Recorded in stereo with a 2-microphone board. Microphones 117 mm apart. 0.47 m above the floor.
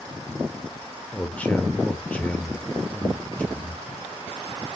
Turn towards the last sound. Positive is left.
turn(degrees=10)  # may be behind; listen again after turning